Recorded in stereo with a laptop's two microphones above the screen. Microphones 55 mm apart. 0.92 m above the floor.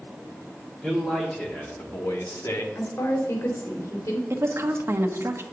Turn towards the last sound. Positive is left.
turn(degrees=-55)  # may be behind; listen again after turning